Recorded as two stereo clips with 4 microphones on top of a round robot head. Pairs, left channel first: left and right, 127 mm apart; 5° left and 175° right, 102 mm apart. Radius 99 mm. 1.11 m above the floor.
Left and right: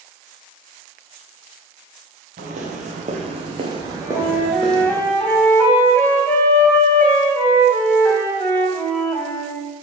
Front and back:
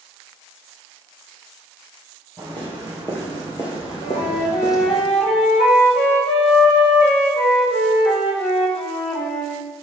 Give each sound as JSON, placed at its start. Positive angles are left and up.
{"t": 2.4, "sound": "footsteps", "azimuth_deg": -75, "distance_m": 2.0}
{"t": 4.0, "sound": "a flute", "azimuth_deg": 15, "distance_m": 1.9}